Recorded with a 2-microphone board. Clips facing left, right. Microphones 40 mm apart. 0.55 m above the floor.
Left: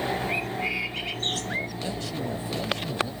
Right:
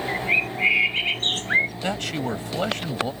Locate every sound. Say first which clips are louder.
0.1 s a bird: right 5 dB; 45° right (ahead or behind)
1.8 s a man speaking: right 5 dB; 70° right (ahead or behind)